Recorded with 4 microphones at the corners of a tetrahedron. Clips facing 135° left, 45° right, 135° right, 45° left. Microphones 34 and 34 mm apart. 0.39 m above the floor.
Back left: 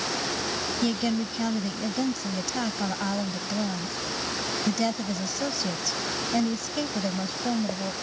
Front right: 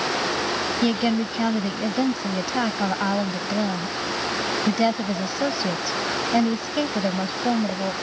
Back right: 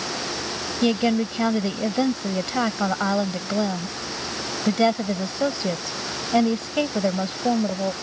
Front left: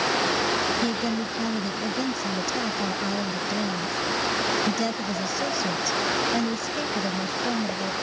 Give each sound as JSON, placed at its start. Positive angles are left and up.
{"t": 0.8, "sound": "a woman speaking", "azimuth_deg": -100}